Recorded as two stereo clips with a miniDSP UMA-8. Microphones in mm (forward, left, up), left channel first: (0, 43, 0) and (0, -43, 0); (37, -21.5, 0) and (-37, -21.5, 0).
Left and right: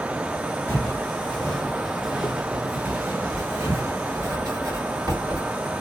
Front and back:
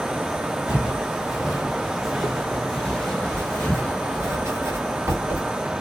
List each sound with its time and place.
0.7 s footsteps: 120° left, 1.6 m; by 4.3 s 65° right, 2 m
3.3 s writing: 135° right, 2.5 m